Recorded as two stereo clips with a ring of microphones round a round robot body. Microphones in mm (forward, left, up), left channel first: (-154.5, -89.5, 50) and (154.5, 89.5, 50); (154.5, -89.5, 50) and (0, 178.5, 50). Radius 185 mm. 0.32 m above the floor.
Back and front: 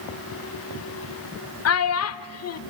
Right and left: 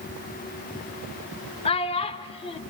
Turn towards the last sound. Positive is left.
turn(degrees=-125)